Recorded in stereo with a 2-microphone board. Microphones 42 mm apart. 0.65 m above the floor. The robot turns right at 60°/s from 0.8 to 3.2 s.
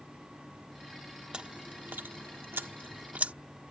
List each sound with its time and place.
1.3 s chewing: 20° right (ahead or behind); by 3.3 s 35° right (ahead or behind)